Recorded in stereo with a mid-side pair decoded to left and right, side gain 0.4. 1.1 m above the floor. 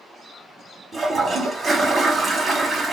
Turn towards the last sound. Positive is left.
turn(degrees=-40)